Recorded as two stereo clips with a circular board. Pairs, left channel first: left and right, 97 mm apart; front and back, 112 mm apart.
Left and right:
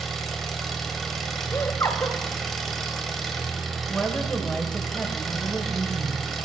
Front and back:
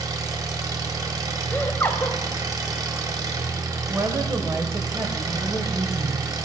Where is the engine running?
175° left, 1.4 m.